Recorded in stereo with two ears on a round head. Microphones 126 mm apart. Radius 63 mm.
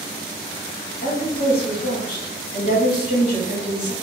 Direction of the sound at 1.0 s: 55° left (ahead or behind).